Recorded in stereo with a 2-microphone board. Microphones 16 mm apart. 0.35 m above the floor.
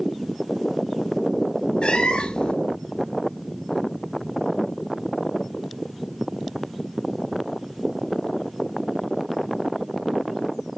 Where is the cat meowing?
85° left, 1.3 m.